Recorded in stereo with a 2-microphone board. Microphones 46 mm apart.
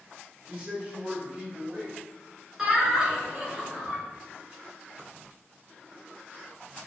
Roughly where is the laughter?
Centre.